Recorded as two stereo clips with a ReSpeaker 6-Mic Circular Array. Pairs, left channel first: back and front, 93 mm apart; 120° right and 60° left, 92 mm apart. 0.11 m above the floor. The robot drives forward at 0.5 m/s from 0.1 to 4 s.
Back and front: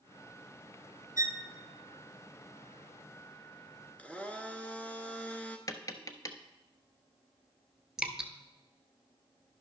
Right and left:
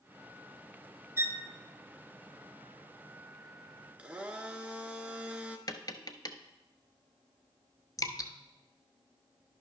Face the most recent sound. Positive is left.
turn(degrees=-85)